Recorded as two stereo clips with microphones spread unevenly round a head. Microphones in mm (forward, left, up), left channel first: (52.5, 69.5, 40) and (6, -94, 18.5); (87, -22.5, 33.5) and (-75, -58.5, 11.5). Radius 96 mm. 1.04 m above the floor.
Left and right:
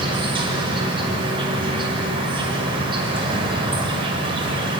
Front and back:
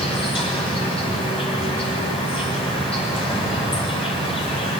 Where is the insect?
45° right, 5.5 m.